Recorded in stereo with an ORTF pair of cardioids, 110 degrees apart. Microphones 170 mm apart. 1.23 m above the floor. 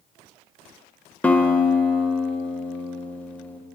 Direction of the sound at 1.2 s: 10° left.